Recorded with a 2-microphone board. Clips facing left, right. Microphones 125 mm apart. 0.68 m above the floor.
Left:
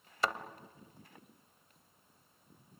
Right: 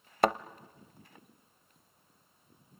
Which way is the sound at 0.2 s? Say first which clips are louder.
Right 8 dB; 55° right (ahead or behind).